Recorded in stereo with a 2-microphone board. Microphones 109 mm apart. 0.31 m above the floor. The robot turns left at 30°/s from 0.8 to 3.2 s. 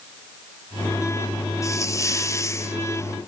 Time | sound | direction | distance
1.6 | a hiss | 25° left (ahead or behind) | 0.8 m